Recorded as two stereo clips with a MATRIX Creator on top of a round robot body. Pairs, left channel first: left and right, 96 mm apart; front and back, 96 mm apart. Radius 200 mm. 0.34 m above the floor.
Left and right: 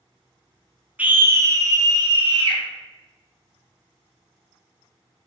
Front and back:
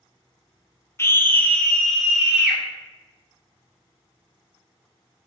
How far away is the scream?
About 0.8 m.